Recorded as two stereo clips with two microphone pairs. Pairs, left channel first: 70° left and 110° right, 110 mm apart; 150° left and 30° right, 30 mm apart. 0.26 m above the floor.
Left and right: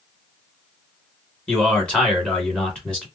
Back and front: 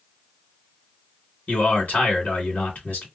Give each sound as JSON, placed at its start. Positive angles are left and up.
{"t": 1.5, "sound": "a man speaking", "azimuth_deg": 150, "distance_m": 2.5}